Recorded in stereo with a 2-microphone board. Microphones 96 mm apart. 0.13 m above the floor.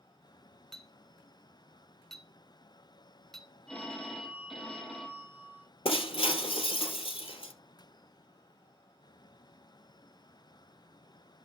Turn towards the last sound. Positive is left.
turn(degrees=70)  # may be behind; listen again after turning